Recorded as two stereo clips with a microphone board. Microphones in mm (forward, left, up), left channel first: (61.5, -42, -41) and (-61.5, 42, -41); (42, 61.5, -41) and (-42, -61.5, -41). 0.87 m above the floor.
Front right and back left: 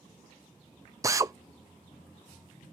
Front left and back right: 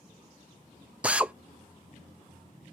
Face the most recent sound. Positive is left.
turn(degrees=165)